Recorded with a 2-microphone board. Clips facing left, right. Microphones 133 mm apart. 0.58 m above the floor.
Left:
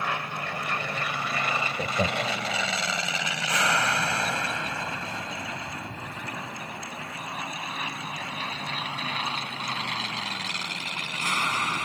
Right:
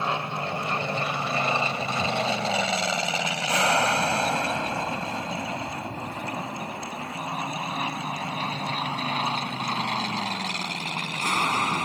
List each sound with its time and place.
0.0 s an aircraft: 25° right (ahead or behind); by 11.8 s 35° right (ahead or behind)
1.8 s laughter: 45° left (ahead or behind)